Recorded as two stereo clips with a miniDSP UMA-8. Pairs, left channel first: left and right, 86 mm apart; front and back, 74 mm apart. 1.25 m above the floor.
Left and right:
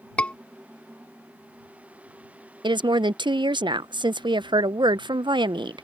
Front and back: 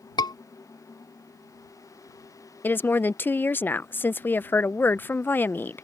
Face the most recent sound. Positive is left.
turn(degrees=-65)